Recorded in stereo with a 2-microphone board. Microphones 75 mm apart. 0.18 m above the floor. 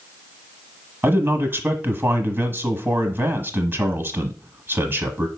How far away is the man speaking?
About 1.2 m.